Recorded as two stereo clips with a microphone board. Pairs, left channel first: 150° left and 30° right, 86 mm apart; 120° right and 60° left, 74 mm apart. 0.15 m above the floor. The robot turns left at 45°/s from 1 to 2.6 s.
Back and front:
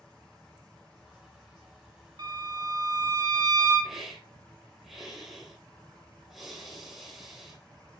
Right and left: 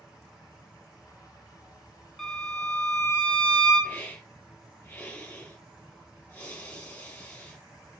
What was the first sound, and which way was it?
A violin, 30° right.